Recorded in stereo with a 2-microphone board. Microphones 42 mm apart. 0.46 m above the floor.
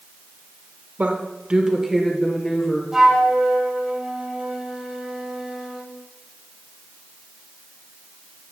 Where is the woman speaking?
40° right (ahead or behind), 1.2 m; by 2.8 s 20° left (ahead or behind), 1.7 m.